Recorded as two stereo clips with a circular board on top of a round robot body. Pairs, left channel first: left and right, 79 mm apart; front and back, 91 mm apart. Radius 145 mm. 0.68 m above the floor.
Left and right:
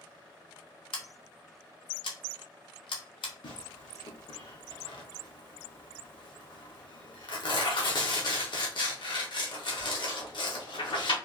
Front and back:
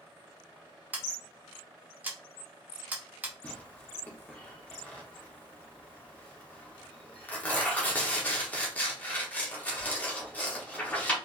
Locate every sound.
0.9 s scissors: 105° left, 0.7 m
3.4 s tearing paper: 75° left, 1.3 m